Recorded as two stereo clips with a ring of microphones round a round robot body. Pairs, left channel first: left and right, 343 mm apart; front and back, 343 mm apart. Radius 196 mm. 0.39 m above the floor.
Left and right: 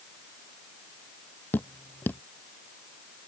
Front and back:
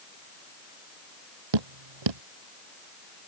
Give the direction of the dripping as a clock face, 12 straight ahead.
6 o'clock.